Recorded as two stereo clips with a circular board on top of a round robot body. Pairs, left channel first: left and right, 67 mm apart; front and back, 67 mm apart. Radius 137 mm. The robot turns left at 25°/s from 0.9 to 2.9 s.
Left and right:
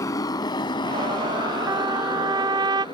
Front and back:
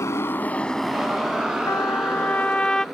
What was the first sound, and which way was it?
A motorcycle, 50° left.